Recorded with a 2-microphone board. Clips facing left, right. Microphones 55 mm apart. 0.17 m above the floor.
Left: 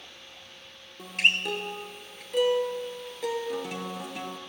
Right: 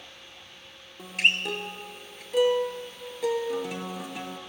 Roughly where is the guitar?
Centre.